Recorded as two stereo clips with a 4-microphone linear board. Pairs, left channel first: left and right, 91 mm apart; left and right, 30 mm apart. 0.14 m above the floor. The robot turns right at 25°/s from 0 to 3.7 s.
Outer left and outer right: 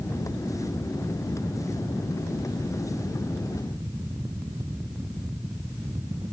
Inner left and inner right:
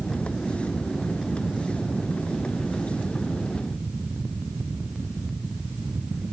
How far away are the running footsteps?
I don't hear running footsteps.